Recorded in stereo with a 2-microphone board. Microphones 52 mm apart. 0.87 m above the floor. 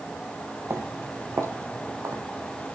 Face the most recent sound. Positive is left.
turn(degrees=-60)  # may be behind; listen again after turning